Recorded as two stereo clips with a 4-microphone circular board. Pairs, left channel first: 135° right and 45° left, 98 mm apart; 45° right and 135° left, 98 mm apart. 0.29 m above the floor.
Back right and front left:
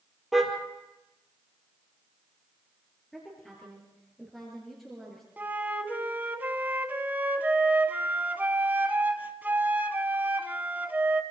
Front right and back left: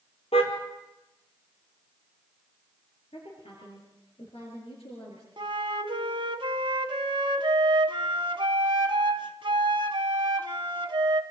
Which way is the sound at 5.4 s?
115° left.